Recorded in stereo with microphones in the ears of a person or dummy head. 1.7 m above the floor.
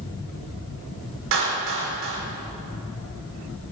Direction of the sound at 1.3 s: 65° right (ahead or behind).